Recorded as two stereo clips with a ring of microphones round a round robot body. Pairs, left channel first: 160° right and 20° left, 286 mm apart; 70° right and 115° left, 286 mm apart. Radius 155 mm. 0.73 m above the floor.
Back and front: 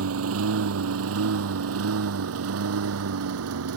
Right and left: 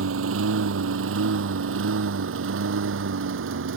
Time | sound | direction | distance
0.0 | a lawn mower | 65° left | ?